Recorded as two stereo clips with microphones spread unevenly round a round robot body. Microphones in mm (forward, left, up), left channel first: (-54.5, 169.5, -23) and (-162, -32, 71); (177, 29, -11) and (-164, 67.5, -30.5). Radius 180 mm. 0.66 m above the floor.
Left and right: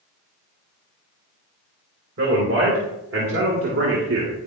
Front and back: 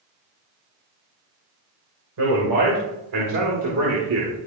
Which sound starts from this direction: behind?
A man speaking, at 2.2 s.